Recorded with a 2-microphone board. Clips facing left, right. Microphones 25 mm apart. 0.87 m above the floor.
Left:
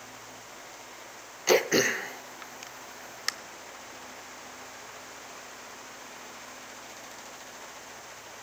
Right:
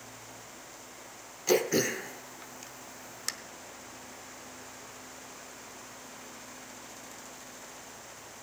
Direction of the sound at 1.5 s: 30° left (ahead or behind).